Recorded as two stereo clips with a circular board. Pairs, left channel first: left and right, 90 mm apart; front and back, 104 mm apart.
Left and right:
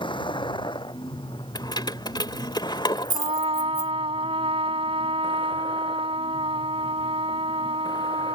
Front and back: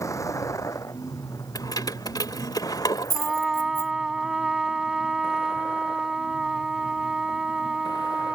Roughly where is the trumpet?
Right.